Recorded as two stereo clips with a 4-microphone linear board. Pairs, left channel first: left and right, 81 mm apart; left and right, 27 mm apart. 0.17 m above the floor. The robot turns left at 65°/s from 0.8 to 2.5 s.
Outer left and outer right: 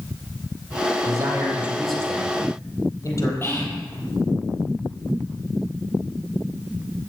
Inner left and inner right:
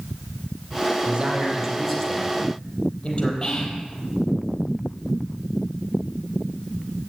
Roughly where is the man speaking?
Behind right.